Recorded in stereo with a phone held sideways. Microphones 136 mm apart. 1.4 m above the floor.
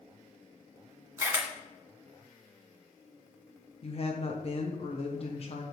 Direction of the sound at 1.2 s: 20° right (ahead or behind).